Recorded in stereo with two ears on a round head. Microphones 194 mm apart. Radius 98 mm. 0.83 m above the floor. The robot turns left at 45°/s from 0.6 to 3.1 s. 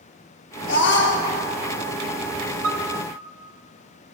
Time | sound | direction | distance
0.7 | a scream | 60° left (ahead or behind) | 1.4 m
2.6 | a piano | 70° right (ahead or behind) | 1.0 m